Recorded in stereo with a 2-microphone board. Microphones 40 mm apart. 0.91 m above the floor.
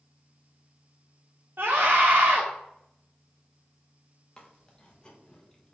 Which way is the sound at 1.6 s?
70° right (ahead or behind).